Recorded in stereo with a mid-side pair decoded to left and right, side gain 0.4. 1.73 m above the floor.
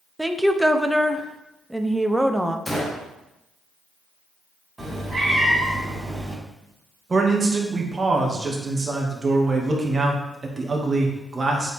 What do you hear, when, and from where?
0.2 s a woman speaking: 5° right, 0.8 m
2.7 s a gunshot: 10° left, 1.7 m
4.8 s a cat meowing: 15° right, 4 m
7.1 s a man speaking: 35° right, 2 m